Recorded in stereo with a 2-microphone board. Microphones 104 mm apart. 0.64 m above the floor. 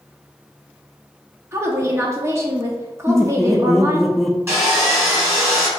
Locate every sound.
1.5 s a woman speaking: 25° right (ahead or behind), 0.9 m
3.1 s laughter: centre (ahead or behind), 0.6 m
4.5 s sawing: 25° right (ahead or behind), 1.8 m